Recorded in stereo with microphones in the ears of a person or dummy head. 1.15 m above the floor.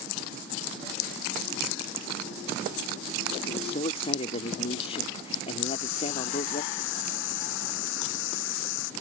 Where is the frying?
80° left.